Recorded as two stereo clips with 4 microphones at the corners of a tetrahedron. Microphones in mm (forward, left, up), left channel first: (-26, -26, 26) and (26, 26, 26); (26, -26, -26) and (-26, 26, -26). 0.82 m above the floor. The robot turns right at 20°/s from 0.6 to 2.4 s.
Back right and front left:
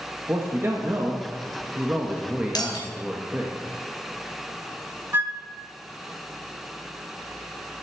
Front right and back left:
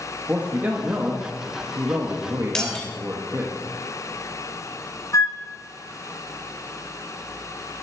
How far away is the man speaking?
About 1.3 m.